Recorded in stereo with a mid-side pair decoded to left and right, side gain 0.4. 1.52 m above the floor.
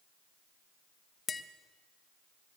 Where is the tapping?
35° left, 1.3 m.